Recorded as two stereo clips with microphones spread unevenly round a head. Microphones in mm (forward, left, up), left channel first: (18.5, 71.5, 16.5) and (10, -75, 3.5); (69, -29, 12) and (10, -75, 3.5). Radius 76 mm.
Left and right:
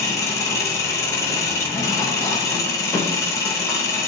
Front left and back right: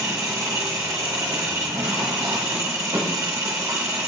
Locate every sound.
0.0 s an engine running: 150° left, 1.0 m